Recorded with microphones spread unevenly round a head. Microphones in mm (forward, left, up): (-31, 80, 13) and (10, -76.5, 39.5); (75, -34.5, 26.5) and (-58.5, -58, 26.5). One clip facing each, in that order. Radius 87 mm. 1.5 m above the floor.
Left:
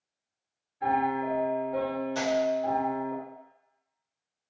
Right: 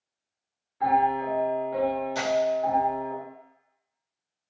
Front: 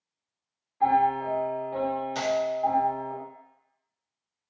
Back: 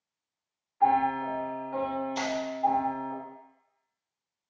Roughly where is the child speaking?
I don't hear a child speaking.